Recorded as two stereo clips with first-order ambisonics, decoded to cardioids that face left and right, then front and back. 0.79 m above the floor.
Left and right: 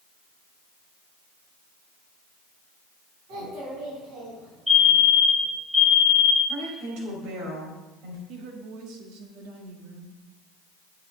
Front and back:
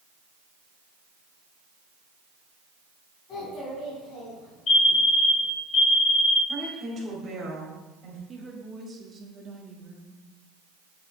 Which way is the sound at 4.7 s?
5° right.